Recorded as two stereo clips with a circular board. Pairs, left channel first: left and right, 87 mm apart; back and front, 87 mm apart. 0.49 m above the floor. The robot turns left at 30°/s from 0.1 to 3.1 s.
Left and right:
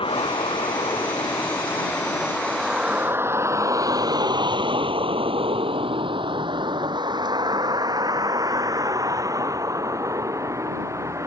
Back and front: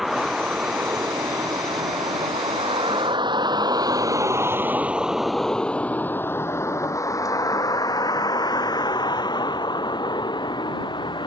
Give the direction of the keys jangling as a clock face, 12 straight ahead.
No keys jangling in this recording.